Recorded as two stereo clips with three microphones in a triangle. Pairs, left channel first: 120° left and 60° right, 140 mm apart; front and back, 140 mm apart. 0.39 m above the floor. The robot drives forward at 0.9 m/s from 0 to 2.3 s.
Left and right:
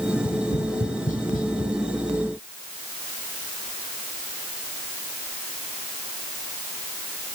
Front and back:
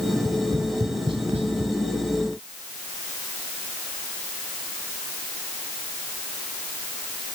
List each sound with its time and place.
0.1 s tapping: 100° left, 1.5 m; by 1.7 s 140° left, 2 m